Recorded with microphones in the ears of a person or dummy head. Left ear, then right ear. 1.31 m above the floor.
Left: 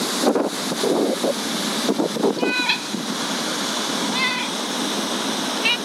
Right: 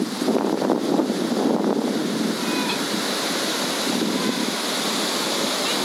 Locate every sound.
2.4 s a cat meowing: 55° left (ahead or behind); by 5.8 s 60° left (ahead or behind)